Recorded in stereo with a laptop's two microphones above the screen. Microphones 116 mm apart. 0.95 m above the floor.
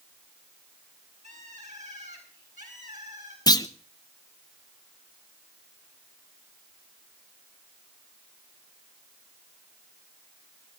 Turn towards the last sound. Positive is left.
turn(degrees=35)  # may be behind; listen again after turning